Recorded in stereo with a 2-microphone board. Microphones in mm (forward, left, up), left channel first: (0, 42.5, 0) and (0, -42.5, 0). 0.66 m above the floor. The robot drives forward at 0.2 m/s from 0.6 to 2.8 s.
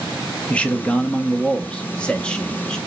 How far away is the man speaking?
About 0.5 m.